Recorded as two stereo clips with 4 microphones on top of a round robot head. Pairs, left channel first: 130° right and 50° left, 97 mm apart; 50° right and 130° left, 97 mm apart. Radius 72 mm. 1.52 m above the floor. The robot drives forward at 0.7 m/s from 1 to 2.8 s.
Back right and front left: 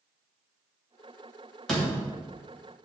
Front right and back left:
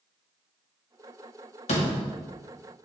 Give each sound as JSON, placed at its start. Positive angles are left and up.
{"t": 1.7, "sound": "a door slam", "azimuth_deg": -45, "distance_m": 2.0}